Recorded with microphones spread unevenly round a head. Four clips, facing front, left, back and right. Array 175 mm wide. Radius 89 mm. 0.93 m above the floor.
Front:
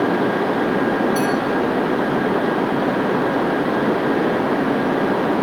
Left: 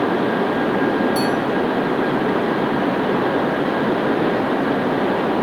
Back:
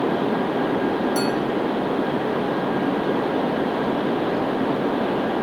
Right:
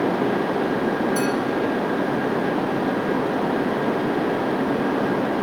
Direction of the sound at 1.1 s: 175° right.